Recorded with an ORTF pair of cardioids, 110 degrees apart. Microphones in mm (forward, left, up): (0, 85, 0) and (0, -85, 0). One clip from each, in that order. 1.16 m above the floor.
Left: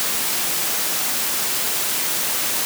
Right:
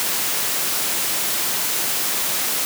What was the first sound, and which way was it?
Only background noise.